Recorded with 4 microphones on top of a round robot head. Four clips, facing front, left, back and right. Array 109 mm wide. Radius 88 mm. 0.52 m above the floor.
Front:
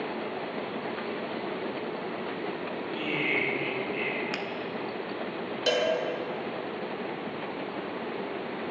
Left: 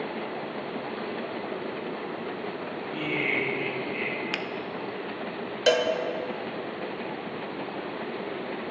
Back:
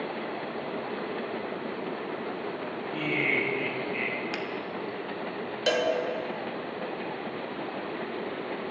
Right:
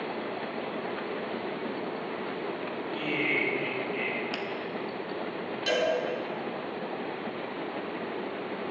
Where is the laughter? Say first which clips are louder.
Left 1 dB, back 2 dB; 145° left, 3 m.